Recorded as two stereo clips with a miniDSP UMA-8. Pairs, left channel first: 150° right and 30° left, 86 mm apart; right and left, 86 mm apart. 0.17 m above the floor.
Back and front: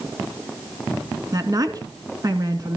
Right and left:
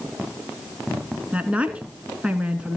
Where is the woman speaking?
20° left, 1.8 m.